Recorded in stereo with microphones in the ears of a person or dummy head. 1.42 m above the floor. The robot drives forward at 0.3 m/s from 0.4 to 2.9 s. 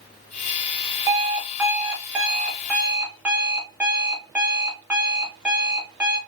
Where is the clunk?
I don't hear a clunk.